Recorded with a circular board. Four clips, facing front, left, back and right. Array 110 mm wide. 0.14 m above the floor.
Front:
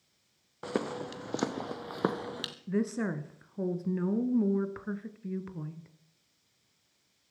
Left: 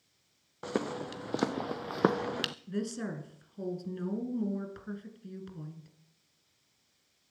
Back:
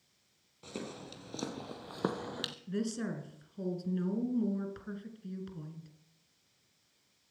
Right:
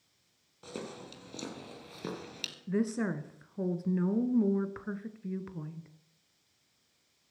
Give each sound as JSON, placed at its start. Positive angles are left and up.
{"t": 0.6, "sound": "footsteps", "azimuth_deg": 40, "distance_m": 1.6}
{"t": 2.7, "sound": "a woman speaking", "azimuth_deg": -40, "distance_m": 1.3}